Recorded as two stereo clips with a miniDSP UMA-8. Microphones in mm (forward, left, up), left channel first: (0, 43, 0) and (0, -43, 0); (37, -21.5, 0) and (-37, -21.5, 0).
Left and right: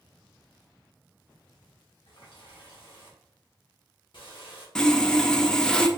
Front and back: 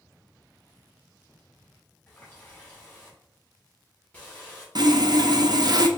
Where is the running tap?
70° left, 1.7 m.